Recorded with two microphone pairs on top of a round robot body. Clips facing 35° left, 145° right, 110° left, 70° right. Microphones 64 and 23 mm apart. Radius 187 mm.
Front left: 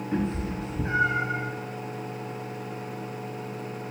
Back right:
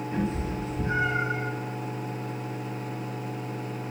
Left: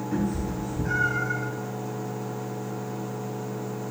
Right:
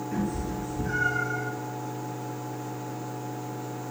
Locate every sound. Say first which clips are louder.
0.1 s a cat meowing: front left 2 dB, left 3 dB; 30° left, 1.5 m; by 1.4 s 65° left, 1.0 m